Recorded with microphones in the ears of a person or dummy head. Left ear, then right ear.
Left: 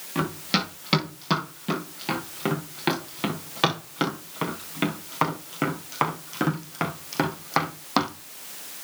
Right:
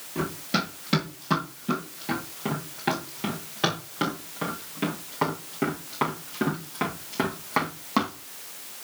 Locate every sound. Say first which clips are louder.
0.1 s running footsteps: left 2 dB; 40° left (ahead or behind), 7 m; by 8.1 s 30° left (ahead or behind), 2.5 m